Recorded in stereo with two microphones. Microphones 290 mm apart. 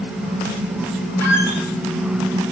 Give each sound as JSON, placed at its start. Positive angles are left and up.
{"t": 1.2, "sound": "a squeak", "side_deg": 65, "distance_m": 0.9}